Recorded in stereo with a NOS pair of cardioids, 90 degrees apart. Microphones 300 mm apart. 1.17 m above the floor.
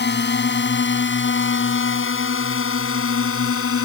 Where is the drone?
35° left; by 3.9 s 50° left.